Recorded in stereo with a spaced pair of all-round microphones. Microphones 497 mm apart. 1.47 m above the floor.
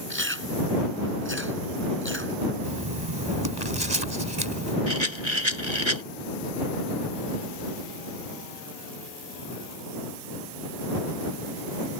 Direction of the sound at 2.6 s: 55° right (ahead or behind).